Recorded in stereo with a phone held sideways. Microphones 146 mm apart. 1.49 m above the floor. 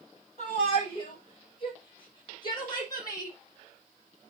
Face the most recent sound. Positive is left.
turn(degrees=25)  # may be behind; listen again after turning